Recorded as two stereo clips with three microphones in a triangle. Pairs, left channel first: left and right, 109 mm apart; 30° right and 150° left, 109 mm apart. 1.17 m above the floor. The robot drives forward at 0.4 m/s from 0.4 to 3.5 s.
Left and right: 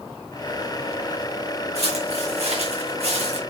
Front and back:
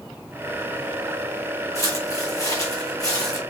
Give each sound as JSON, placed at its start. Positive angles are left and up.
{"t": 1.8, "sound": "footsteps", "azimuth_deg": -90, "distance_m": 5.0}